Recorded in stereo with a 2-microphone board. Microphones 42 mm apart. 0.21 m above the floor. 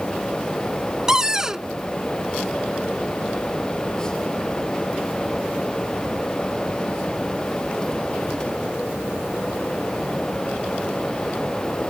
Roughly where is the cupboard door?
Centre.